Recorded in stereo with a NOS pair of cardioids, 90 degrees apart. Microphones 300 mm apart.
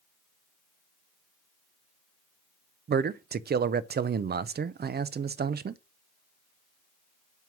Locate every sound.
2.9 s a man speaking: 35° right, 0.6 m